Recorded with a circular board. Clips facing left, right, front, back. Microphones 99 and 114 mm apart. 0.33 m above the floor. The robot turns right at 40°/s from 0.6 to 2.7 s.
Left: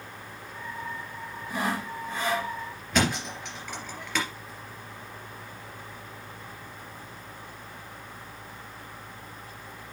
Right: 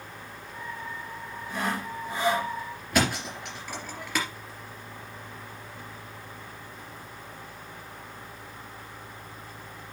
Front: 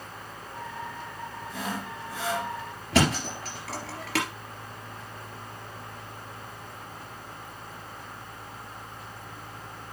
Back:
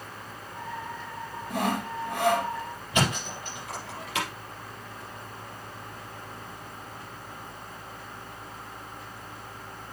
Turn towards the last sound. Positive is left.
turn(degrees=-5)